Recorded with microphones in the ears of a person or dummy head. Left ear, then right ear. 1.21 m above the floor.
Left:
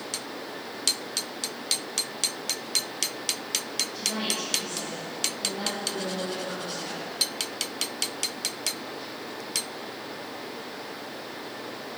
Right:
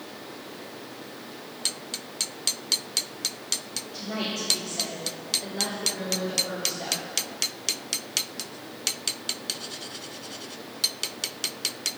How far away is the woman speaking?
About 3 m.